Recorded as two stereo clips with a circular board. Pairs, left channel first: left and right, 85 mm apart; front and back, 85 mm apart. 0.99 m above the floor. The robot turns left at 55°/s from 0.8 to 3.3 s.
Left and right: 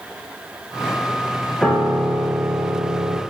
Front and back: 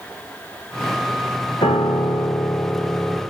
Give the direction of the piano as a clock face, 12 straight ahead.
12 o'clock.